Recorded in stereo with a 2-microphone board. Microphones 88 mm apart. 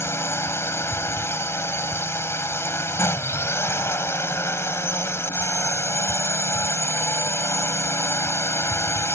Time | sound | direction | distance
0.0 | a drone | 30° left (ahead or behind) | ?